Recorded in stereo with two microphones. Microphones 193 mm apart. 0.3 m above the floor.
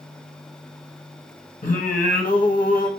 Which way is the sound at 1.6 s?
45° left (ahead or behind).